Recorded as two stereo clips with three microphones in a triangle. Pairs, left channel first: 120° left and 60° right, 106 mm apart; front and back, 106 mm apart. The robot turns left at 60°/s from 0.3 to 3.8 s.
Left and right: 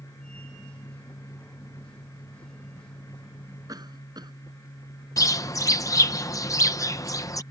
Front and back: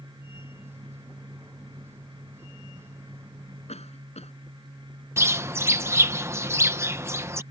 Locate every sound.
3.7 s a cough: 5° right; by 4.3 s 10° right
5.2 s a bird: 140° left